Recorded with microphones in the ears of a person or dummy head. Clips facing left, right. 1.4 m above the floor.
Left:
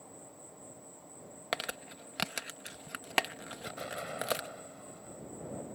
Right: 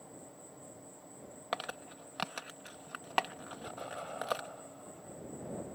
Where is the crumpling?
20° left (ahead or behind).